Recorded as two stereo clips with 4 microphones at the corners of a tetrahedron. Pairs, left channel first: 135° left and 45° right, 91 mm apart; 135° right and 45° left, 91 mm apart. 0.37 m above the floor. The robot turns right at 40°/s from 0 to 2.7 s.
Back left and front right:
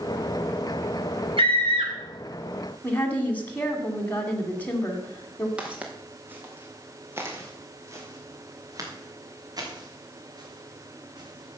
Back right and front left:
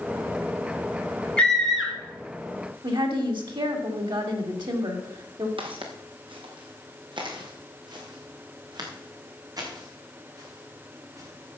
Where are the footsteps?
35° left, 2.5 m; by 11.6 s 10° right, 5 m.